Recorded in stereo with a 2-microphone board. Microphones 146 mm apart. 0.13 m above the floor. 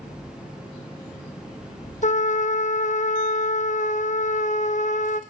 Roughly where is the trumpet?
Left.